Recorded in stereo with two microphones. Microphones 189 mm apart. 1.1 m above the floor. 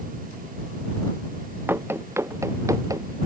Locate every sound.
1.7 s running footsteps: 10° right (ahead or behind); by 3.2 s 20° right (ahead or behind)